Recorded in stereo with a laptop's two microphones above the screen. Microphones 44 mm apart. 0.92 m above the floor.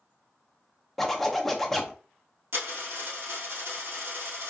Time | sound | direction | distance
1.0 | a zipper | 5° left (ahead or behind) | 0.6 m
2.5 | a dropped coin | 60° right (ahead or behind) | 1.8 m